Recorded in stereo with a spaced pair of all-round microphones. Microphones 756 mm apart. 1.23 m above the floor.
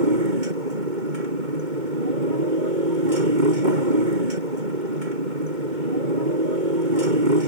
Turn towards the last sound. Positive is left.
turn(degrees=-80)